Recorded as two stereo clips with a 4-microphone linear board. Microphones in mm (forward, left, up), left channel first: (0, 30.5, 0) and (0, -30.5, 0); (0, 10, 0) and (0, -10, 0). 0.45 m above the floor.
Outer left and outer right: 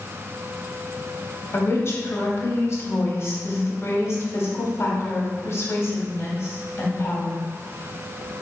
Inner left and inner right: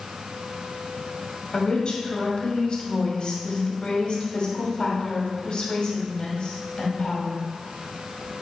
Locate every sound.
1.5 s a woman speaking: 50° left (ahead or behind), 1.0 m